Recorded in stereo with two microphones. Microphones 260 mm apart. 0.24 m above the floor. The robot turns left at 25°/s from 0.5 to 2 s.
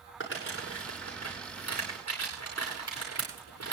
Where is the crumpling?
50° left (ahead or behind), 8.5 m; by 3.7 s 85° left, 8.5 m.